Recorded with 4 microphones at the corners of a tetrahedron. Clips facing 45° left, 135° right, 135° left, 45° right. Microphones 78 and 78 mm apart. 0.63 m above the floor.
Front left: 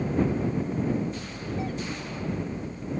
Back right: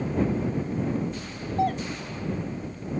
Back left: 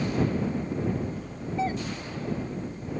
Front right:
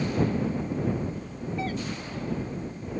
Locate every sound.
1.6 s a doorbell: 160° right